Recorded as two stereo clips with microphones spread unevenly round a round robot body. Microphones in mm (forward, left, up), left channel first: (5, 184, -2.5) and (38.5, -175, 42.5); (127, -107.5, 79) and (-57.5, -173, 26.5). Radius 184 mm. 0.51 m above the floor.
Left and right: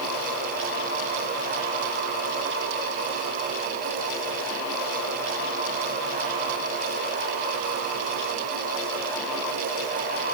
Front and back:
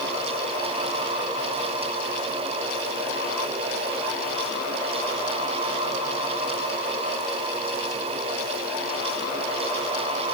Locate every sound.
Only background noise.